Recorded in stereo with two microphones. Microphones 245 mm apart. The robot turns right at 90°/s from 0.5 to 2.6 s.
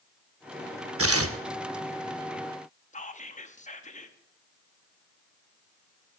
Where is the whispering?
30° left (ahead or behind), 0.8 m.